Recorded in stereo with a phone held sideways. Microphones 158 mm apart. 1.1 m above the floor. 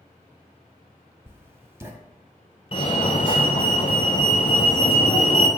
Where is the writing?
15° right (ahead or behind), 1.0 m.